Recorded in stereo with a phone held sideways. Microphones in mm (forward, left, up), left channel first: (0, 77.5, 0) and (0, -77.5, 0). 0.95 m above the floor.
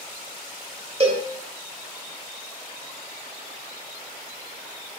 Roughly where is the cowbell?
Right.